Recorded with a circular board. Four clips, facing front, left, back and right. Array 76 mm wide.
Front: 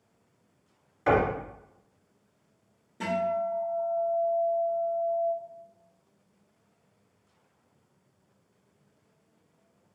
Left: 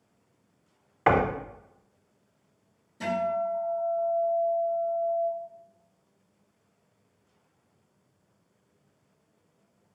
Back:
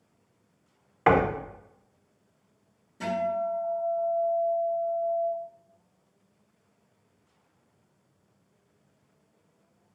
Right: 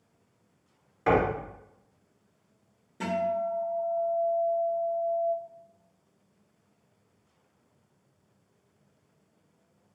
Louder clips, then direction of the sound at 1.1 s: Left 1 dB, back 2 dB; 135° left.